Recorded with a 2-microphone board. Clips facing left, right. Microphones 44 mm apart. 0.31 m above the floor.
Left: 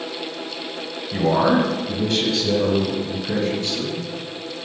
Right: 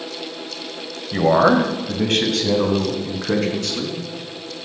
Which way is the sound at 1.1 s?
30° right (ahead or behind).